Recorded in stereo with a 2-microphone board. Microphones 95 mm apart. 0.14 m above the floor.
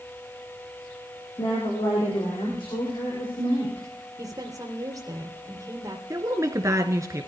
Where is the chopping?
I don't hear chopping.